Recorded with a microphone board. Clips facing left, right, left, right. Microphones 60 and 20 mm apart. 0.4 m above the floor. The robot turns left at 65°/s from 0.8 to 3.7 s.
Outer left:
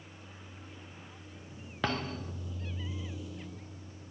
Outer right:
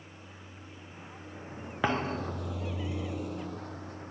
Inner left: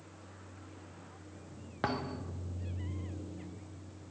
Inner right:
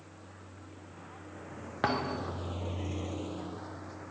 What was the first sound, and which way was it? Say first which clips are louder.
A vehicle: outer right 1 dB, inner right 2 dB; 10° right (ahead or behind).